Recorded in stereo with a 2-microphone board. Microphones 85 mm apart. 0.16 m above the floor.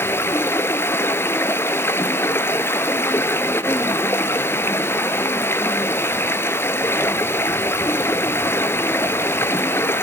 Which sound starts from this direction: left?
Running water, at 0.0 s.